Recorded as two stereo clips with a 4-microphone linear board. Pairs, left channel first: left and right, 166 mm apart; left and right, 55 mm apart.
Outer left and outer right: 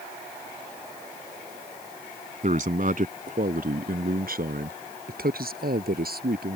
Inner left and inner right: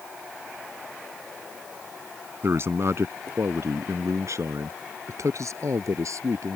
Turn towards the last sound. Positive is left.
turn(degrees=-65)  # may be behind; listen again after turning